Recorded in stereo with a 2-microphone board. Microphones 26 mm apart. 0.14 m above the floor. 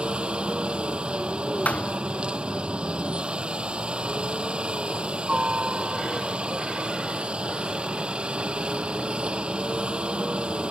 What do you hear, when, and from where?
0.0 s a helicopter: 45° right (ahead or behind)
1.6 s a thud: 70° left (ahead or behind)